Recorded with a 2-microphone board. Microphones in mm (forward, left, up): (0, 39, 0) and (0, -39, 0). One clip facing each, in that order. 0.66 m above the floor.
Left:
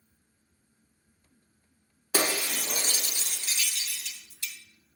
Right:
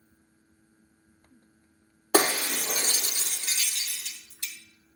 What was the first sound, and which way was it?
Breaking glass, 50° right (ahead or behind).